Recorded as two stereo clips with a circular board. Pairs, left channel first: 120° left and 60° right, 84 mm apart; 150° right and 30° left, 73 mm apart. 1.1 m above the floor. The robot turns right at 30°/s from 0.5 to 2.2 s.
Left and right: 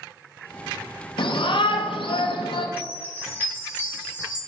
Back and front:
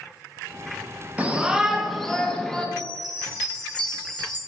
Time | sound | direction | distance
1.2 | a shout | 100° left | 0.6 m
2.8 | a chime | 175° right | 1.0 m